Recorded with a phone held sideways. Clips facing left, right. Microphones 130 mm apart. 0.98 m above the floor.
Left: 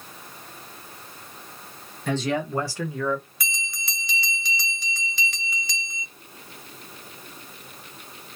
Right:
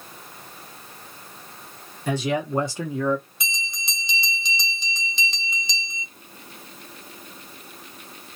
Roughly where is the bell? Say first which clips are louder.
Right 1 dB; right.